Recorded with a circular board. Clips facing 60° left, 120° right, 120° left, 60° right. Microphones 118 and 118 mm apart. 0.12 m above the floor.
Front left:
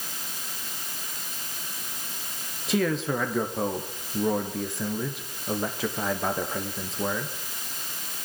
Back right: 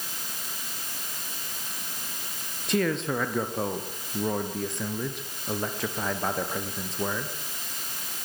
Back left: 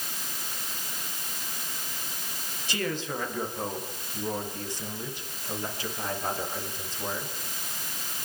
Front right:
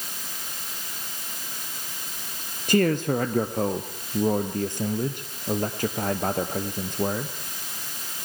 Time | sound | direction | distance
2.7 | a man speaking | 30° right | 3 m